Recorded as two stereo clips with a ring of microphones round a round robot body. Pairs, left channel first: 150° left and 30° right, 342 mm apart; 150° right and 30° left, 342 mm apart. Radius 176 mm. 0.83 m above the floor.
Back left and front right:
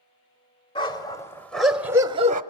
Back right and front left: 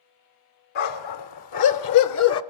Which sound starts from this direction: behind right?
A dog barking, at 0.8 s.